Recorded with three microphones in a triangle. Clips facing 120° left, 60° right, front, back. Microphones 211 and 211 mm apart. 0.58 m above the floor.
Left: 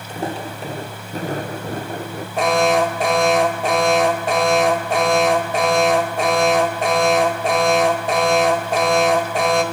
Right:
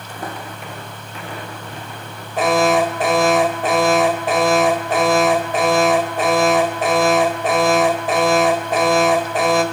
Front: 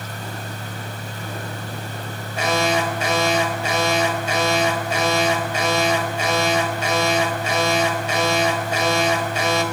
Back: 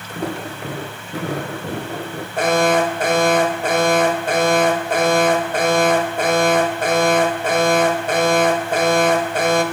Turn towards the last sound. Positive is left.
turn(degrees=-150)